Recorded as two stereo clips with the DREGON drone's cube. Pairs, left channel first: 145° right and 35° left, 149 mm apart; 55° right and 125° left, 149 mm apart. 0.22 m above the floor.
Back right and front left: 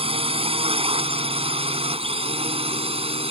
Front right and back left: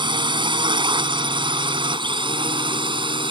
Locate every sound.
0.0 s a drone: 75° left